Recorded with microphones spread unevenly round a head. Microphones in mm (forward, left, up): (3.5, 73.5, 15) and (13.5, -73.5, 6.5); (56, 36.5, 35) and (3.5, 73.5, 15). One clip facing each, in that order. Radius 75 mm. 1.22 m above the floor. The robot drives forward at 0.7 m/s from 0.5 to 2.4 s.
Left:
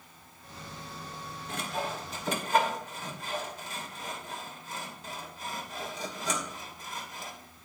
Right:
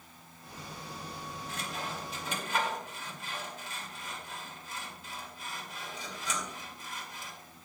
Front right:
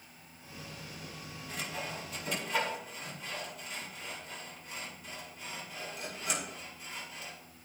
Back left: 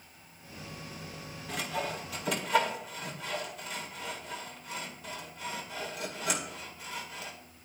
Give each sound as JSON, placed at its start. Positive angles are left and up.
{"t": 1.5, "sound": "sawing", "azimuth_deg": 130, "distance_m": 1.5}